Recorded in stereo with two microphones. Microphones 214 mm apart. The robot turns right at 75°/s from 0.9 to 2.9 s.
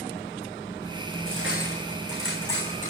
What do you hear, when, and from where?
1.3 s cutlery clinking: 80° right, 6.5 m; by 2.9 s 45° left (ahead or behind), 6.5 m